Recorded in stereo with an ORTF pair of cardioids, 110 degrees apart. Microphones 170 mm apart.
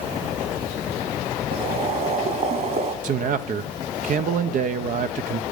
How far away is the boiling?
About 2.5 m.